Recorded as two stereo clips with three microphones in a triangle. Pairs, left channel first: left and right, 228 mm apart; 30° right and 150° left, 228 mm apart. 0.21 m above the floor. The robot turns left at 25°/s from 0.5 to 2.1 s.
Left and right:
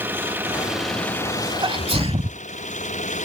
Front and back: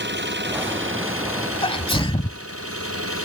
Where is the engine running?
170° right; by 3.2 s 150° left.